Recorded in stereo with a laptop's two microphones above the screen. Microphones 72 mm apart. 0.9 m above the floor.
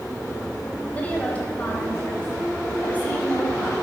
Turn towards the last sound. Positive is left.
turn(degrees=25)  # may be behind; listen again after turning